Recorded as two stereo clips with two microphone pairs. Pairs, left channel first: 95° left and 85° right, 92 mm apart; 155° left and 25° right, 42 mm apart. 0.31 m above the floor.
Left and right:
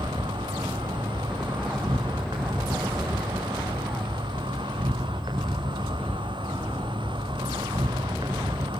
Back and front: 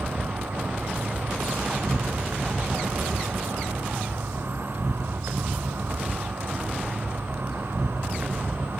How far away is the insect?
About 6 m.